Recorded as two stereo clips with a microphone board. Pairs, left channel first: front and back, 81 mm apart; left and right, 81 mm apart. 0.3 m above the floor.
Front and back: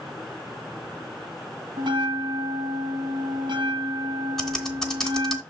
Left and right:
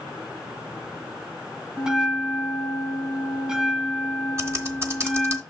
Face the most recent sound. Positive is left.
turn(degrees=-80)